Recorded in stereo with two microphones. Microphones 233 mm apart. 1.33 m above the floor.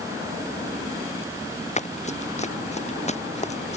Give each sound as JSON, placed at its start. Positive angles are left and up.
{"t": 1.8, "sound": "running footsteps", "side_deg": 30}